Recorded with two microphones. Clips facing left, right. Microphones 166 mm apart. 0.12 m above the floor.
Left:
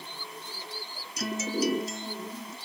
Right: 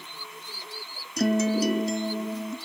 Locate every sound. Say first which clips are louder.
1.2 s a guitar: right 7 dB; 55° right (ahead or behind)